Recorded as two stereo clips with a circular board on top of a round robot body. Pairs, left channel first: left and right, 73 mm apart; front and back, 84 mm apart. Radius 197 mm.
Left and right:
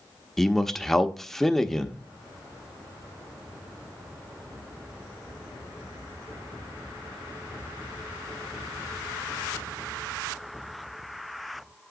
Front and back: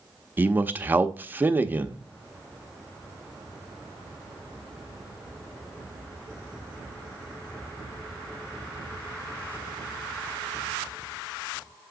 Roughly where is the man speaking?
Behind.